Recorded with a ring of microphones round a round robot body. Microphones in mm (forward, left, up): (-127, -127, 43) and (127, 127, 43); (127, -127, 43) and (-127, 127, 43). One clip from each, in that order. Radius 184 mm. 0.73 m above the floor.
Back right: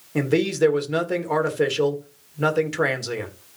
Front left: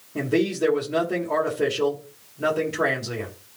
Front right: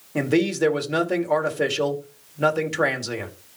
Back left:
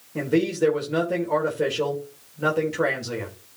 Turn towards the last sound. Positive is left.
turn(degrees=-100)